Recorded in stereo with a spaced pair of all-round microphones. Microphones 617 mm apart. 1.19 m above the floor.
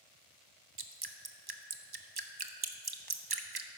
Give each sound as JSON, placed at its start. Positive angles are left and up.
{"t": 0.8, "sound": "dripping", "side_deg": -35, "distance_m": 0.8}